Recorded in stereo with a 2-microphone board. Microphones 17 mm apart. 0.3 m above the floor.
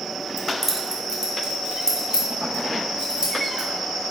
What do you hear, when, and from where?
0.4 s keys jangling: 5° right (ahead or behind), 0.8 m; by 3.7 s 75° right (ahead or behind), 2.5 m